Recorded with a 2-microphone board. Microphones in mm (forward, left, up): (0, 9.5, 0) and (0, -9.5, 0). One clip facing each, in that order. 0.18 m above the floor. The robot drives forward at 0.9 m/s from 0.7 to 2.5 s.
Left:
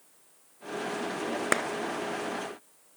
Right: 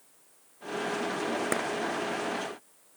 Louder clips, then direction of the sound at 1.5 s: Left 5 dB; 35° left (ahead or behind).